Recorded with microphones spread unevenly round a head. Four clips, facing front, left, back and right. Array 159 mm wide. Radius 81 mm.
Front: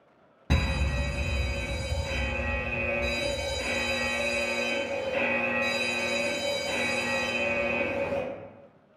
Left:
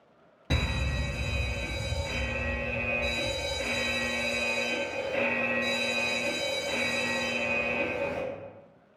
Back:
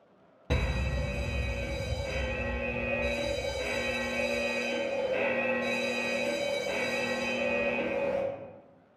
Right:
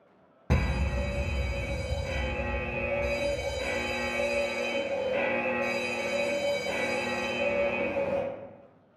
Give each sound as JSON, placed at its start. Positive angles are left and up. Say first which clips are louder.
{"t": 0.5, "sound": "a fire alarm", "louder": "right 2 dB, front 2 dB", "azimuth_deg": -90, "distance_m": 0.7}